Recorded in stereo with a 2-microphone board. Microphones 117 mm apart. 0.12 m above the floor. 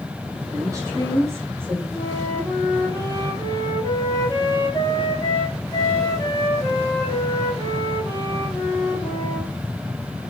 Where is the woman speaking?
30° right (ahead or behind), 4.5 m; by 1.8 s 15° right (ahead or behind), 3 m.